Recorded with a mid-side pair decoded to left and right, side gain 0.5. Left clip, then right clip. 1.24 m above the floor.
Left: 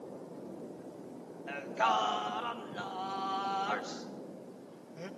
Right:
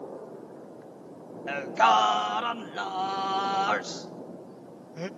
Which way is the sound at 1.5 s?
50° right.